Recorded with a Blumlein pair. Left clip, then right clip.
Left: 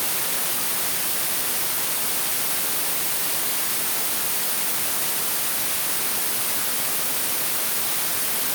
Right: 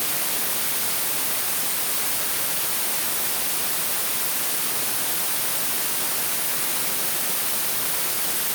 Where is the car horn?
I don't hear a car horn.